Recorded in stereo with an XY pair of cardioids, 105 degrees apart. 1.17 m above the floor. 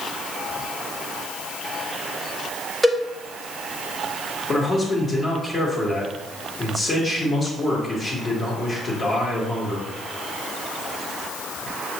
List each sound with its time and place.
2.8 s a cowbell: 10° right, 1.2 m
4.5 s a man speaking: 35° left, 1.5 m